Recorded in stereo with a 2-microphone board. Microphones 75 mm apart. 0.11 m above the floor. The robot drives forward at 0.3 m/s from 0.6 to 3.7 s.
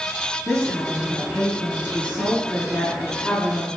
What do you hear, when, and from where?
0.5 s a woman speaking: 15° left (ahead or behind), 1.1 m